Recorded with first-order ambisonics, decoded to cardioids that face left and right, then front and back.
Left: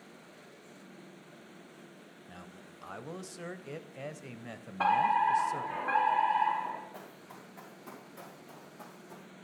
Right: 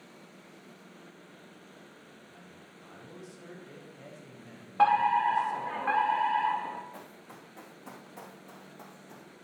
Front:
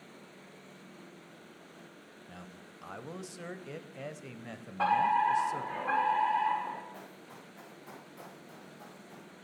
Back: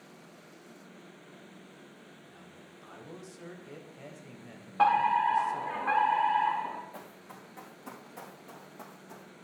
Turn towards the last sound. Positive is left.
turn(degrees=-160)